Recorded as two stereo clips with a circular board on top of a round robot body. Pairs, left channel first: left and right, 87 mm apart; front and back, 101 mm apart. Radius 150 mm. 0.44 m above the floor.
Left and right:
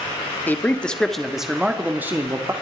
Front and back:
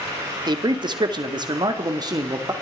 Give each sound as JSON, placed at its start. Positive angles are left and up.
{"t": 0.5, "sound": "a man speaking", "azimuth_deg": 155, "distance_m": 2.0}